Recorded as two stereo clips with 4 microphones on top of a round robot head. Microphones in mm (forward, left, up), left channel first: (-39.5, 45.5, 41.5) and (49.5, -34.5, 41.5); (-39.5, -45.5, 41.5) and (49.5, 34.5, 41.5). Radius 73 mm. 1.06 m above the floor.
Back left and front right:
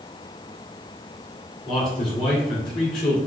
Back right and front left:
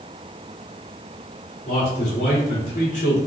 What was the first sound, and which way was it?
A man speaking, 170° right.